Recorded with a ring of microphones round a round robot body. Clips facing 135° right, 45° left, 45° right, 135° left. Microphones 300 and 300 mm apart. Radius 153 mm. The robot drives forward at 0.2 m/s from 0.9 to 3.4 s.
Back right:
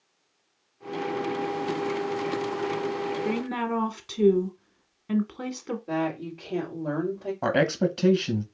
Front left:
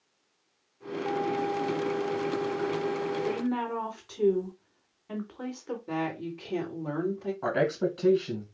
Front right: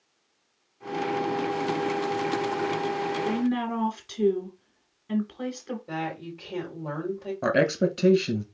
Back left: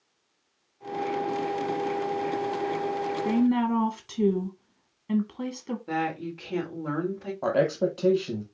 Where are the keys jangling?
I don't hear keys jangling.